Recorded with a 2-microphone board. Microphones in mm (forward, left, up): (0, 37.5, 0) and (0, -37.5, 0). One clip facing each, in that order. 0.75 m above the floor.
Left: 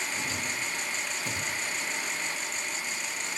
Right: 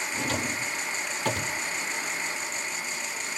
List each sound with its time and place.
0.1 s a drawer: 65° right (ahead or behind), 0.6 m